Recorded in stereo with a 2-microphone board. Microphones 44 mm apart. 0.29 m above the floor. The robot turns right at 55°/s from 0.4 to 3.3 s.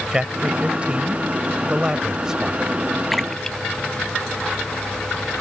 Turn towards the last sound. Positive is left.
turn(degrees=10)  # may be behind; listen again after turning